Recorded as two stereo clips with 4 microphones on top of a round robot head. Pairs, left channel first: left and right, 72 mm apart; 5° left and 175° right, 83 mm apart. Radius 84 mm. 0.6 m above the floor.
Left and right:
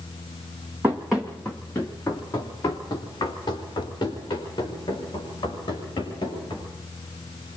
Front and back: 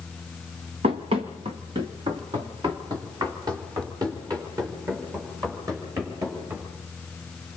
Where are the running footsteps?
165° right, 1.4 m; by 6.7 s 135° left, 8 m.